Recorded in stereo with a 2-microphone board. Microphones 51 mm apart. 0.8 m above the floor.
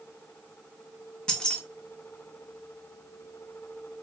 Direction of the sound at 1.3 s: 15° left (ahead or behind).